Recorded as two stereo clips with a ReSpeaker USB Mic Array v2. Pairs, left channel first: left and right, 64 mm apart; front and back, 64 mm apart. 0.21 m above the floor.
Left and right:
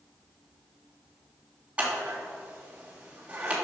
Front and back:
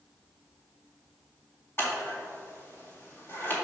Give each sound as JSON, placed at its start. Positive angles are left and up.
{"t": 1.8, "sound": "scissors", "azimuth_deg": -30, "distance_m": 2.5}